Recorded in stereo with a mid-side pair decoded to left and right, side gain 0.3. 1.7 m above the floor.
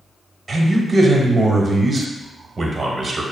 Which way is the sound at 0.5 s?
45° right.